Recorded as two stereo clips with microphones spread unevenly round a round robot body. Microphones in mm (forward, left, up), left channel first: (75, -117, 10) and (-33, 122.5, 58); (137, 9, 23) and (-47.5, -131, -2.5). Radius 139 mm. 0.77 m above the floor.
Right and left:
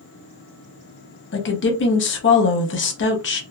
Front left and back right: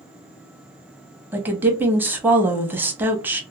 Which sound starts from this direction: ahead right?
A woman speaking, at 1.3 s.